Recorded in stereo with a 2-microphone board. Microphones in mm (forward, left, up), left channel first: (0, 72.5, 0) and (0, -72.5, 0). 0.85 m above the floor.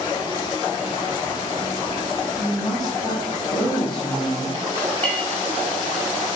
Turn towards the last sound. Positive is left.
turn(degrees=10)  # may be behind; listen again after turning